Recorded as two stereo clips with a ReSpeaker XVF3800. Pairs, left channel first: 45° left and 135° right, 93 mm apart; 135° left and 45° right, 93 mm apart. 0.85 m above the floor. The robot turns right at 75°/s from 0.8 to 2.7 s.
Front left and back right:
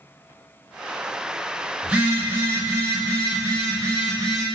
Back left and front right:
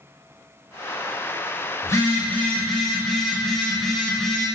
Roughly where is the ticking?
I don't hear ticking.